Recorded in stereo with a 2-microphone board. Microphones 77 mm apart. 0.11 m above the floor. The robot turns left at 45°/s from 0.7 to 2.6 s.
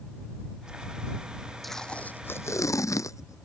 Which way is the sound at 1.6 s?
Straight behind.